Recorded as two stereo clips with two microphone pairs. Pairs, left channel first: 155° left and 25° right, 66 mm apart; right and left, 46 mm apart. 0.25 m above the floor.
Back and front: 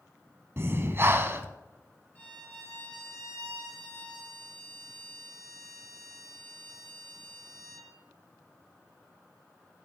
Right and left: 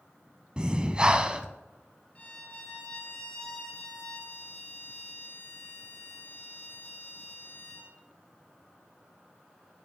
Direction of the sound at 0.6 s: 20° left.